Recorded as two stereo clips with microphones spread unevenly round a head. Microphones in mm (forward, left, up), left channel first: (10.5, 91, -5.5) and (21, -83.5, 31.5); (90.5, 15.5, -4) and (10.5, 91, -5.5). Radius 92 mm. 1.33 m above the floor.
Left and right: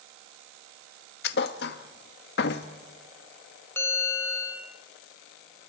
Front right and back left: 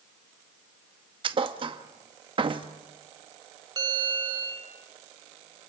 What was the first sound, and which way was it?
A thud, 120° left.